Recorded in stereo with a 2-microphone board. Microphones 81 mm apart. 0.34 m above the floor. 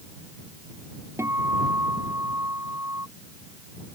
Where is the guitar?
35° right (ahead or behind).